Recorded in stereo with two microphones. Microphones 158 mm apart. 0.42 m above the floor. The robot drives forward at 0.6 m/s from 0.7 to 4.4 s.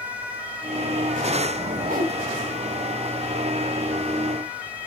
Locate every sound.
1.8 s a whoosh: 60° right (ahead or behind), 1.0 m; by 2.1 s 65° right (ahead or behind), 1.0 m